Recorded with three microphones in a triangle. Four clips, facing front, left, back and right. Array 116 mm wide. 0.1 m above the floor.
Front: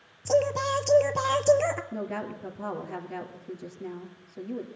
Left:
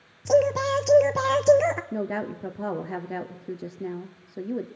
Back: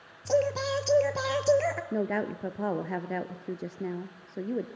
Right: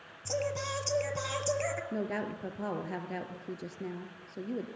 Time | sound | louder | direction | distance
0.2 | singing | left 14 dB, front 2 dB | 85° left | 0.9 m
1.9 | a woman speaking | left 5 dB, back 4 dB | 150° left | 1.7 m